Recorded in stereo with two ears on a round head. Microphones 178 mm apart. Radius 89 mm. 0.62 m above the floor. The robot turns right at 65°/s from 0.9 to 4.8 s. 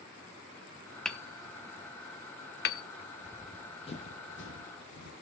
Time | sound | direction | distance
1.1 | hammering | centre (ahead or behind) | 0.8 m
3.2 | running footsteps | 20° right (ahead or behind) | 1.1 m